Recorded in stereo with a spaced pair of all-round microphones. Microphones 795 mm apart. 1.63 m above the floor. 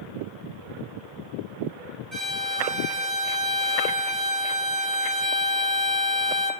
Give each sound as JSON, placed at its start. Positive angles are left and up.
{"t": 2.1, "sound": "a violin", "side_deg": -20, "distance_m": 1.0}